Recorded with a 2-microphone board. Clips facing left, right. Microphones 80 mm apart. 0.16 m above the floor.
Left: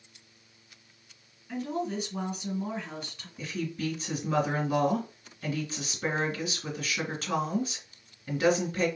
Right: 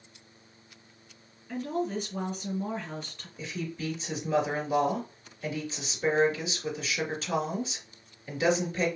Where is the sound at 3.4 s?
50° left (ahead or behind), 2.5 m.